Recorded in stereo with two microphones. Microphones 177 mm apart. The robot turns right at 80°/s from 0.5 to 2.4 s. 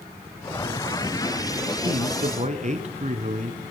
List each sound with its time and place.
1.8 s a man speaking: 105° right, 2.5 m; by 3.6 s 60° right, 2.5 m